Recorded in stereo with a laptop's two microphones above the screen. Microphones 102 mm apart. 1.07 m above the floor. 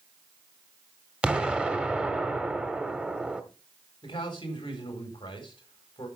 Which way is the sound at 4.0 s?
50° left (ahead or behind).